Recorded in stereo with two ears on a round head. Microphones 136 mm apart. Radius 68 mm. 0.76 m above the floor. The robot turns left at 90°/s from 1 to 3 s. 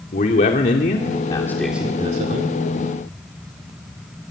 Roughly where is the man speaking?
Ahead left.